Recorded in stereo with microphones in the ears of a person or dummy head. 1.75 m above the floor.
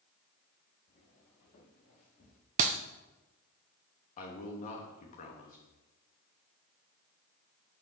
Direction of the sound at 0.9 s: 45° left (ahead or behind).